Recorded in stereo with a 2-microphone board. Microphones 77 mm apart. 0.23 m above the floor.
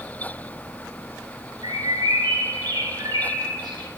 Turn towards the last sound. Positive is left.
turn(degrees=-70)  # may be behind; listen again after turning